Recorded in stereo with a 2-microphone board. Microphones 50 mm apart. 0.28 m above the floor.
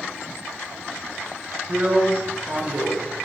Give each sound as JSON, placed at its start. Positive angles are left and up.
{"t": 1.7, "sound": "a drill", "side_deg": -25, "distance_m": 1.6}